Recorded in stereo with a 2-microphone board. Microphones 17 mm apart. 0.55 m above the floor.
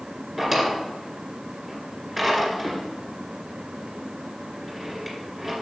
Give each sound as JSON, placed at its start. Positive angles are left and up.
{"t": 0.4, "sound": "a drawer", "side_deg": 0, "distance_m": 2.0}